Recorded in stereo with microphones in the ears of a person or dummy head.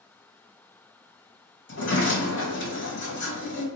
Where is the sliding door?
55° left (ahead or behind), 1.3 m.